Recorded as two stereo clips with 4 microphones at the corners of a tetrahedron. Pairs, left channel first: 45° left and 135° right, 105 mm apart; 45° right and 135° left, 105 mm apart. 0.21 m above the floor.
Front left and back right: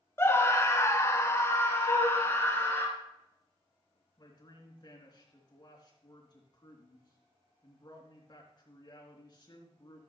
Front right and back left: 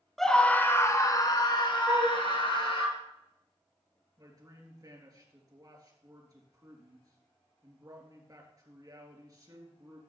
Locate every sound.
0.2 s a scream: 40° left, 1.2 m; by 2.9 s 20° right, 3 m
1.9 s a flute: 80° left, 3.5 m
4.2 s a man speaking: 85° left, 3 m